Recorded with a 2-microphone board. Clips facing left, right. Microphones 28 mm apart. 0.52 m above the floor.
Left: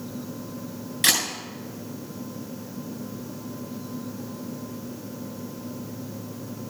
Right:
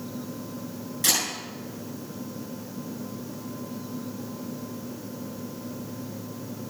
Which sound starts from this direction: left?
A camera shutter, at 1.0 s.